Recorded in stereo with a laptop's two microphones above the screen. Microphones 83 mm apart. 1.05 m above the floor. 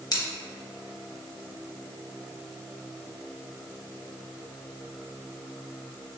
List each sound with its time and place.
0.1 s scissors: 50° left (ahead or behind), 0.7 m